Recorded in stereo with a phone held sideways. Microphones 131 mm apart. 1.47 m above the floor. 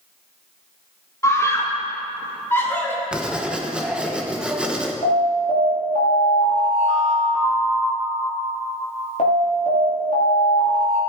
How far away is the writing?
About 1.1 m.